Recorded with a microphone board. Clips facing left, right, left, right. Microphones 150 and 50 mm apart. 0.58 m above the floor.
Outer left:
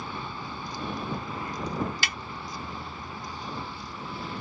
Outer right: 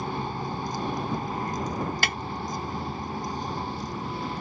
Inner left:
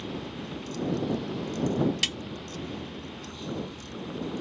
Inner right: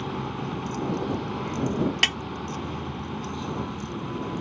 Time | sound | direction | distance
0.0 | a vehicle | 40° right (ahead or behind) | ?
2.0 | a snare drum | 50° right (ahead or behind) | ?